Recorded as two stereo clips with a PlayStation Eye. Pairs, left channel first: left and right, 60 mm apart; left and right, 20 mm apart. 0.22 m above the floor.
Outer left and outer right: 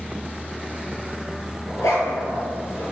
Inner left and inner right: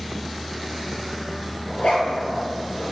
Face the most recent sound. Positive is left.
turn(degrees=75)  # may be behind; listen again after turning